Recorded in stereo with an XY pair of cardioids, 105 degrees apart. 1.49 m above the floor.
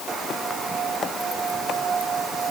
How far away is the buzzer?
I don't hear a buzzer.